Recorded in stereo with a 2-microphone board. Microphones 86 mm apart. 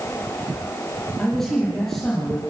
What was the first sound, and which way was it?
A man speaking, 5° left (ahead or behind).